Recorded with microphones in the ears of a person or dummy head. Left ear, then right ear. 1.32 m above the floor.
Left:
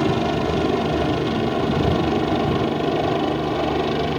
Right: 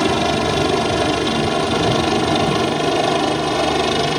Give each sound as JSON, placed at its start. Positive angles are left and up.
{"t": 0.0, "sound": "a helicopter", "side_deg": -70}